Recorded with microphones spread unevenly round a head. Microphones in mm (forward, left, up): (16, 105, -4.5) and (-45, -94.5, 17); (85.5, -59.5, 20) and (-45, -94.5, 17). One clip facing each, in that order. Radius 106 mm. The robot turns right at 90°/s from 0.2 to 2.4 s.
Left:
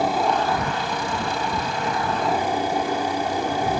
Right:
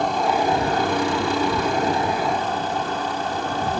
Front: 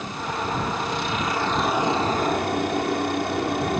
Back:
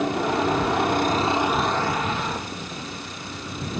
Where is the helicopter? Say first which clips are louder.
Right 1 dB, back 7 dB; 155° left; by 3.8 s 5° right.